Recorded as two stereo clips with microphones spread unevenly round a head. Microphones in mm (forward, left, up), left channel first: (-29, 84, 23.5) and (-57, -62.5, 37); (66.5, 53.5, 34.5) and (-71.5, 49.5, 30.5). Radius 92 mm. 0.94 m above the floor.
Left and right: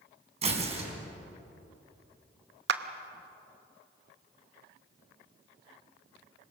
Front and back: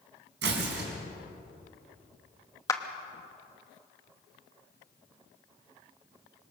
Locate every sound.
0.4 s tearing paper: 150° right, 3.5 m
2.7 s a clap: 70° right, 0.9 m